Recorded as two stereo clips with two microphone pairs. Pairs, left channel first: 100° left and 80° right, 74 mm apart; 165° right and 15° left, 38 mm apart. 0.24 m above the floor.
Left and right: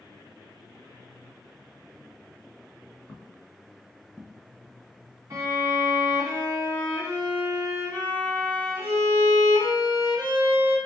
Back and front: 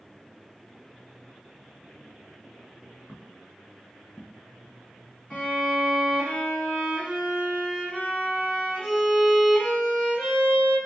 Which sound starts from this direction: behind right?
A violin, at 5.3 s.